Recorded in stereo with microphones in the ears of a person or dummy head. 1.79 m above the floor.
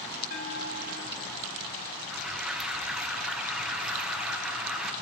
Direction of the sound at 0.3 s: 50° left (ahead or behind).